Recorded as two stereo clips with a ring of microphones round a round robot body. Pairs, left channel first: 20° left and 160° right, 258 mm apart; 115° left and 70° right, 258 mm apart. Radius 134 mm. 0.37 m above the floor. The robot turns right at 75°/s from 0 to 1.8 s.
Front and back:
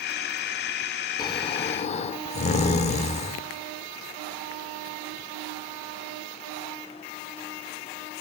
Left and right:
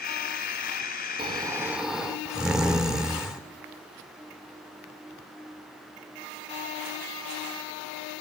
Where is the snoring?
30° right, 1.5 m; by 3.4 s 15° left, 1.5 m.